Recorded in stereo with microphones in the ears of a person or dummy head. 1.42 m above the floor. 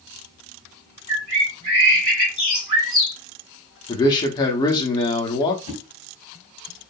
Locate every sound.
1.1 s a bird: 40° right (ahead or behind), 1.5 m
3.9 s a man speaking: 25° left (ahead or behind), 0.7 m
5.7 s a whoosh: 30° left (ahead or behind), 1.4 m